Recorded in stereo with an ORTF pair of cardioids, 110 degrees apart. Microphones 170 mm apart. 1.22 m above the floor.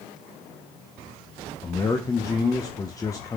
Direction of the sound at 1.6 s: 20° left.